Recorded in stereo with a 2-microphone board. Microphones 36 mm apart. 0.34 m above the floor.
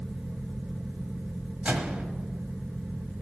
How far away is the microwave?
About 1.5 m.